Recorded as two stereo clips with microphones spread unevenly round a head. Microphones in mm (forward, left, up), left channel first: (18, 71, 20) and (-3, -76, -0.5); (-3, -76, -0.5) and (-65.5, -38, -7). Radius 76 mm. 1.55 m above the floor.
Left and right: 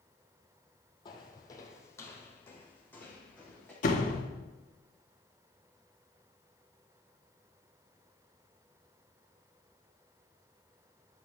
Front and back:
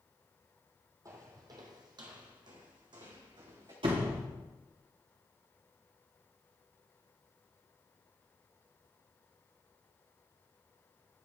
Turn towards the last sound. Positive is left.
turn(degrees=115)